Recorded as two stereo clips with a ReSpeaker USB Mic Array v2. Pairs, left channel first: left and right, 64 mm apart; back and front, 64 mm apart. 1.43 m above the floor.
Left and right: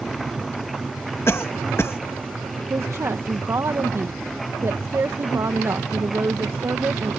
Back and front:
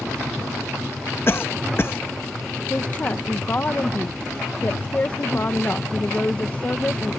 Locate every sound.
1.3 s a cough: 135° left
2.7 s a woman speaking: 125° right